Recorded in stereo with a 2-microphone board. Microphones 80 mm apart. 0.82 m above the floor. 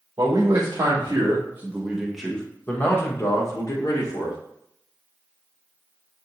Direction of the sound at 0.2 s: 50° right (ahead or behind).